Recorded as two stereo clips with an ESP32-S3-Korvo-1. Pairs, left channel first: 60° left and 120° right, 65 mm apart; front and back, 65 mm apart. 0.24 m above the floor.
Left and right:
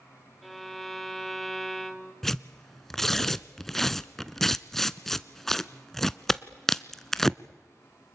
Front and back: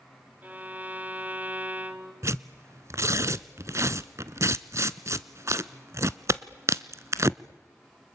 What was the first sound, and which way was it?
A violin, 150° left.